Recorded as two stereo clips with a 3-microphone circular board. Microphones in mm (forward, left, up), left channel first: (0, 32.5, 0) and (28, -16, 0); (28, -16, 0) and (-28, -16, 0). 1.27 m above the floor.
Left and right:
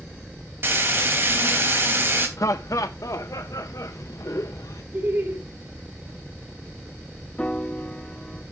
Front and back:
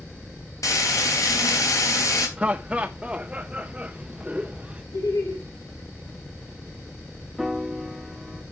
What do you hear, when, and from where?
0.6 s frying: 10° right, 3.5 m
2.4 s laughter: 110° left, 0.6 m
4.9 s laughter: 5° right, 2 m
7.4 s a piano: 120° left, 0.7 m